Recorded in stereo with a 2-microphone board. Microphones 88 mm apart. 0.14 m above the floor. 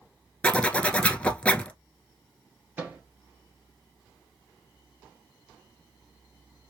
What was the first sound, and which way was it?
A zipper, 15° left (ahead or behind).